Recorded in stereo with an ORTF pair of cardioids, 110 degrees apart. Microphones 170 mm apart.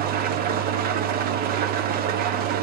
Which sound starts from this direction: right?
An engine running, at 0.0 s.